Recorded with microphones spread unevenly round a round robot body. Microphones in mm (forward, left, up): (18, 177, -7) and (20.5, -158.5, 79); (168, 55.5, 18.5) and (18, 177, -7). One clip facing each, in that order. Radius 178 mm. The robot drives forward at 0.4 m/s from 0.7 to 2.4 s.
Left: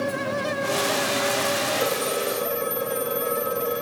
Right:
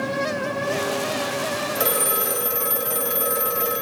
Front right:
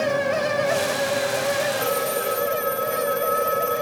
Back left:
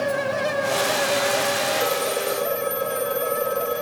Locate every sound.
1.8 s a phone ringing: 145° right, 3 m